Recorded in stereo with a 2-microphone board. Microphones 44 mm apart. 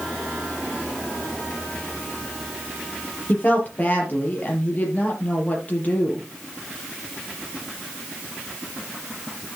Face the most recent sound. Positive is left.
turn(degrees=35)  # may be behind; listen again after turning